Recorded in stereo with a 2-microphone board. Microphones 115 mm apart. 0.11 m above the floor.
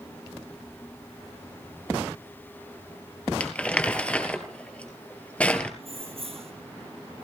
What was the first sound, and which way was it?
Crumpling, 10° left (ahead or behind).